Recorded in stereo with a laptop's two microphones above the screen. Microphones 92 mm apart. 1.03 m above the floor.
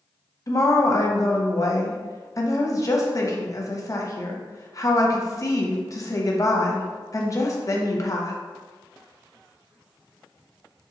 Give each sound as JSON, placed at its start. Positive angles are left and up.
{"t": 0.5, "sound": "a woman speaking", "side_deg": 40, "distance_m": 0.7}